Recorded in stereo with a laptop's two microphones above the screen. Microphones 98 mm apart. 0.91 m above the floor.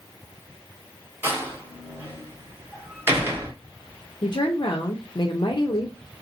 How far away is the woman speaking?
About 0.7 m.